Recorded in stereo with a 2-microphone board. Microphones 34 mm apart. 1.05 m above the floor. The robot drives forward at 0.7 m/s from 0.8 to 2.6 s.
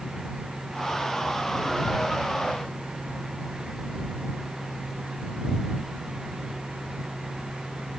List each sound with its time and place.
Only background noise.